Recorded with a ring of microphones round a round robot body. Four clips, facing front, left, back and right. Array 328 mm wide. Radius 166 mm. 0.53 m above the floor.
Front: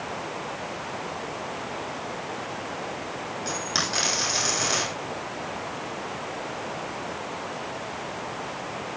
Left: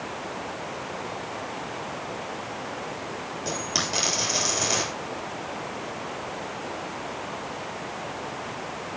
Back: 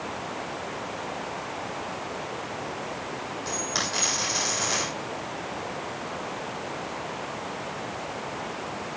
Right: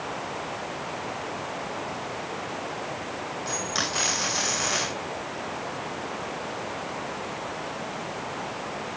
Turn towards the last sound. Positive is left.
turn(degrees=60)